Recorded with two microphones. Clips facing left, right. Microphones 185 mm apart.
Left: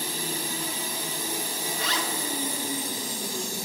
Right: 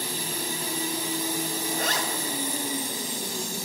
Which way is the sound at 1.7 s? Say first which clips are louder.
Right 1 dB; 45° right (ahead or behind).